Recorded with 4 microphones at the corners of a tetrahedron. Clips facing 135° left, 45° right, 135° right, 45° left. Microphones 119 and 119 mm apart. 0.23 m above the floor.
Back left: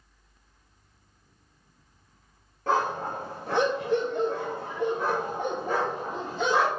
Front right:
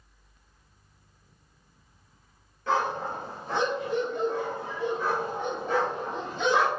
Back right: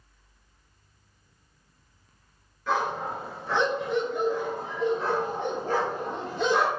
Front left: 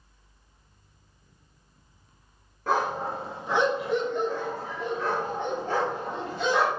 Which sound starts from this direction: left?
A dog barking, at 2.7 s.